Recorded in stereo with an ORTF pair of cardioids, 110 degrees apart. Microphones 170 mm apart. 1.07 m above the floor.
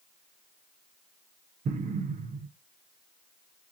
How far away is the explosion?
About 0.9 m.